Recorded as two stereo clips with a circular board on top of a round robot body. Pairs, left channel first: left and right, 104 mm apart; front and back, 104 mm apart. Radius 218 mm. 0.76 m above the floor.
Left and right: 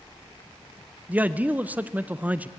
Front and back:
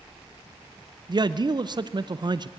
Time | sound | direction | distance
1.1 | a man speaking | 160° right | 0.8 m